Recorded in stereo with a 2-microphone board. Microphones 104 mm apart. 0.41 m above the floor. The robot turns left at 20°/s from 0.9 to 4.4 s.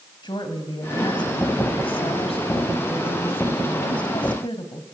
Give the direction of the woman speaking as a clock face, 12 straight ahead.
8 o'clock.